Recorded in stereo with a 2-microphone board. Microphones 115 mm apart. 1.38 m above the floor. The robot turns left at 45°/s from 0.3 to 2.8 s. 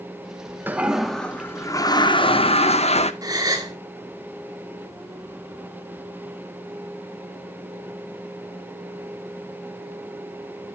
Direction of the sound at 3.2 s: 35° right (ahead or behind).